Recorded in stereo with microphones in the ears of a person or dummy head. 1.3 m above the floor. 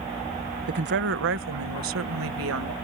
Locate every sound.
0.7 s a woman speaking: 45° right (ahead or behind); by 2.7 s 85° right